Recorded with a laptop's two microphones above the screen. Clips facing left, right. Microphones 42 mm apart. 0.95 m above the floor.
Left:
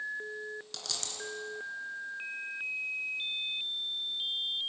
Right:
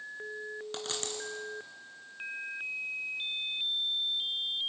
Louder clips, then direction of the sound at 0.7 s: Right 4 dB; 30° right (ahead or behind).